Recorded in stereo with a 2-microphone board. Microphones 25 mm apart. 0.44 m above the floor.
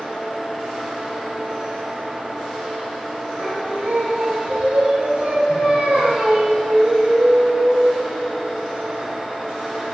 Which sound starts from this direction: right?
Singing, at 3.4 s.